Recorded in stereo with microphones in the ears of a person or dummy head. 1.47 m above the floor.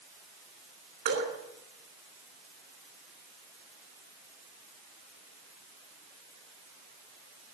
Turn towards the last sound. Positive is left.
turn(degrees=-55)  # may be behind; listen again after turning